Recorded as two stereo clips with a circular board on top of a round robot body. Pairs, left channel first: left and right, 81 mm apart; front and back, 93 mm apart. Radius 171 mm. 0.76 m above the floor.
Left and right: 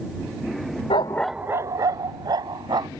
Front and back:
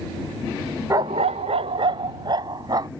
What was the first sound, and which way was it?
A dog barking, 120° left.